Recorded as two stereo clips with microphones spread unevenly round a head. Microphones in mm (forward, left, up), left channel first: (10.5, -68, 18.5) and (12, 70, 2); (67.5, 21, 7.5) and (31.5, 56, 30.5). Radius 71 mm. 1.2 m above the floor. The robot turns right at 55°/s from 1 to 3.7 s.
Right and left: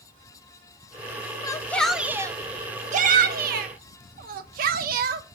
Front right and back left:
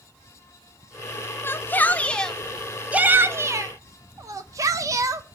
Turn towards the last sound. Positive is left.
turn(degrees=100)